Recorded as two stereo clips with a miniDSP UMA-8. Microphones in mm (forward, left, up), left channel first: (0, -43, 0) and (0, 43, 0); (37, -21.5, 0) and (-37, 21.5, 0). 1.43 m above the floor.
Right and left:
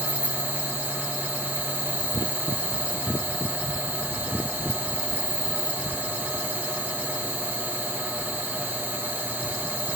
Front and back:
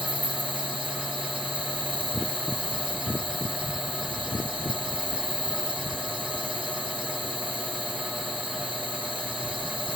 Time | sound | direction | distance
0.0 | an insect | 155° left | 1.0 m